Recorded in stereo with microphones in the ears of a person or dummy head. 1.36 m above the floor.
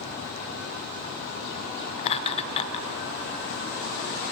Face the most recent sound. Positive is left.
turn(degrees=35)  # may be behind; listen again after turning